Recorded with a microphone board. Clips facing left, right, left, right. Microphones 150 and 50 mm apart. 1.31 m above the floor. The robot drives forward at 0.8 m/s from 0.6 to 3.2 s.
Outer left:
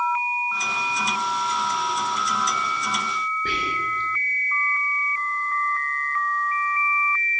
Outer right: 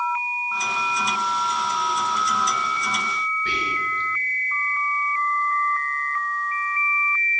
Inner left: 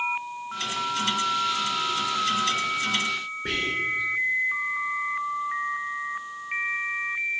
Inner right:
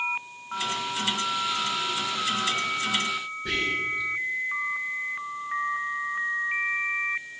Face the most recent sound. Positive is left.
turn(degrees=50)  # may be behind; listen again after turning